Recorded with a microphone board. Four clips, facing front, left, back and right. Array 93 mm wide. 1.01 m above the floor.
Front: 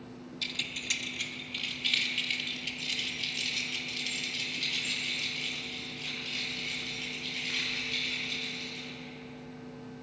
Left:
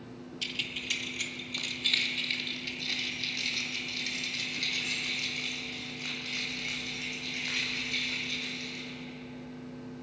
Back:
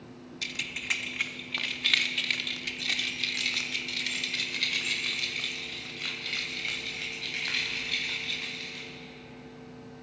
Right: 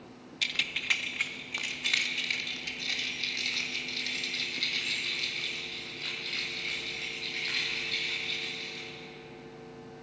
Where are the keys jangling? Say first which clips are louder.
Right 6 dB, back 4 dB; 100° right, 0.6 m; by 8.9 s 165° left, 4.5 m.